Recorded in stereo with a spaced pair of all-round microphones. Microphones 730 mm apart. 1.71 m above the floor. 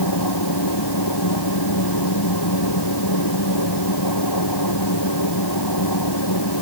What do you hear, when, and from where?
0.0 s a machine running: 30° left (ahead or behind)